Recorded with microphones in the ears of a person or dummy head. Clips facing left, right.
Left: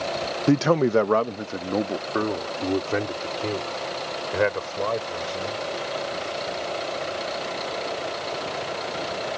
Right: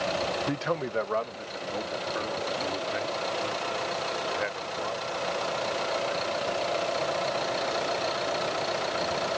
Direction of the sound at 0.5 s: 60° left (ahead or behind).